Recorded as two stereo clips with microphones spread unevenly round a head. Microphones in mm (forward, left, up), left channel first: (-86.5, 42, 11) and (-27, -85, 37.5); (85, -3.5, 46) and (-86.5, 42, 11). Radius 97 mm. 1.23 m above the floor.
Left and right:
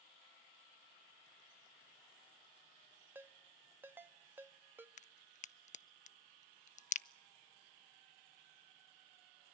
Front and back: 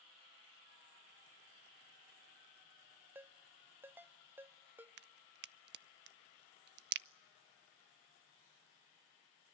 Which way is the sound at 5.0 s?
145° left.